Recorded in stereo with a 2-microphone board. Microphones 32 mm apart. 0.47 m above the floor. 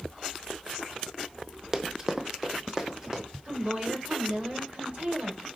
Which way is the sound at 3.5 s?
45° right (ahead or behind).